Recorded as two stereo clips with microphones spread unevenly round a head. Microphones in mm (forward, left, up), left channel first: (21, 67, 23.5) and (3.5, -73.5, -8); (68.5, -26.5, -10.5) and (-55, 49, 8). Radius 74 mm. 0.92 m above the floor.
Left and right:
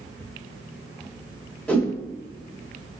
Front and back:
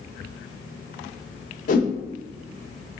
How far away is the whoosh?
About 1.8 m.